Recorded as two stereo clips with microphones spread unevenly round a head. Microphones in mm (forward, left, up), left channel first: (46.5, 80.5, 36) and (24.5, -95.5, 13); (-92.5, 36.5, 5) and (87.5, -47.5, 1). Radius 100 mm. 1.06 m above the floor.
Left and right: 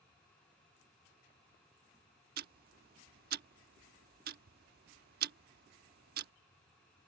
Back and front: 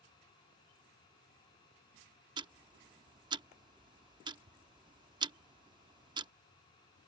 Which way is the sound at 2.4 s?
85° right.